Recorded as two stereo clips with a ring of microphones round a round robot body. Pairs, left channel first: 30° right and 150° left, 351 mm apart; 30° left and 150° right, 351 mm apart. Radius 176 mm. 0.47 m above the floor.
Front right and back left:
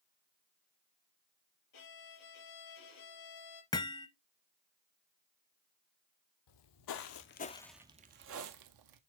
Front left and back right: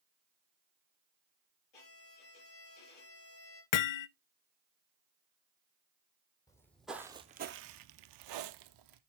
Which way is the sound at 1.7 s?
10° left.